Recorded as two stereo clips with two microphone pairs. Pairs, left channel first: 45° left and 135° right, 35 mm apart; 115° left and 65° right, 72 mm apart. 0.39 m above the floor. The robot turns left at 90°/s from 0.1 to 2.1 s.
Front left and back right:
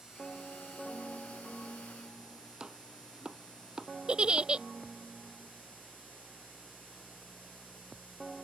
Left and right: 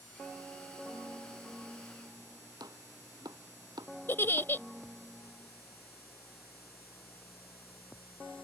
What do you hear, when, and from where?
2.6 s chopping: 70° right
4.1 s a giggle: 170° left